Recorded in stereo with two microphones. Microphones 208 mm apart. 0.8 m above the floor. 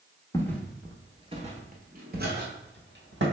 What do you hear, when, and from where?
0.3 s footsteps: 15° left (ahead or behind), 0.8 m; by 3.2 s 65° right (ahead or behind), 1.6 m